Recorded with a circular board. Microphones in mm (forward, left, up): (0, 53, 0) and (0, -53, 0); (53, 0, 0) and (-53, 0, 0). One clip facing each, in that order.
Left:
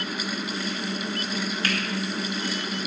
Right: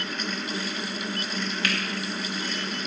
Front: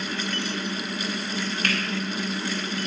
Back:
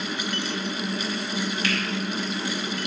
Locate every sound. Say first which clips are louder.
1.6 s a finger snap: left 1 dB, front 1 dB; 40° left, 1.8 m